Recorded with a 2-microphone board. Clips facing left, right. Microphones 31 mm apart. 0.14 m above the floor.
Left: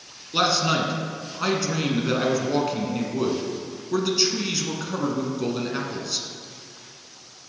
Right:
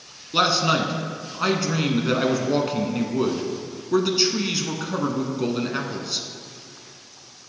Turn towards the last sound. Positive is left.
turn(degrees=-10)  # may be behind; listen again after turning